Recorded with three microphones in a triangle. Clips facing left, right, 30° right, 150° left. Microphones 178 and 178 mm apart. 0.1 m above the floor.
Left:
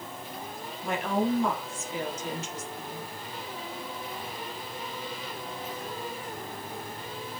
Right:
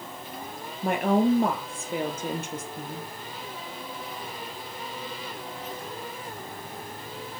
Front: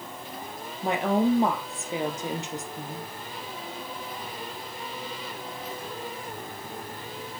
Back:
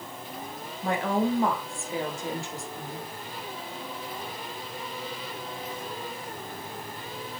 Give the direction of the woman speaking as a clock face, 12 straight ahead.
3 o'clock.